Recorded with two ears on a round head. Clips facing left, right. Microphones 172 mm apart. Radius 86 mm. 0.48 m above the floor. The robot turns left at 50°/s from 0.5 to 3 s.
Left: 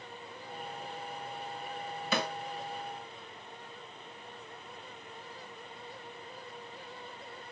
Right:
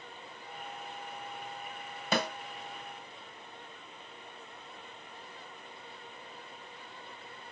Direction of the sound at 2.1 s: 35° right (ahead or behind).